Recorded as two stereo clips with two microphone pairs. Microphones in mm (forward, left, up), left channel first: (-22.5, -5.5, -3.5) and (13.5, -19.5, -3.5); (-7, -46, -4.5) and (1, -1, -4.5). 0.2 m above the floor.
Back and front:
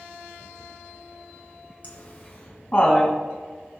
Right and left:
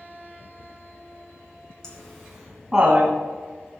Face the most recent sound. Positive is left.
turn(degrees=130)